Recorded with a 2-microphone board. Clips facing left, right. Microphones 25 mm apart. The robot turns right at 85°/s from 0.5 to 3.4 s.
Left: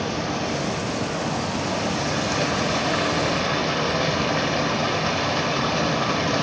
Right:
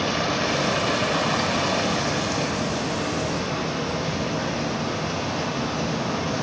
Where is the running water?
140° right, 1.4 m; by 6.4 s 105° left, 1.4 m.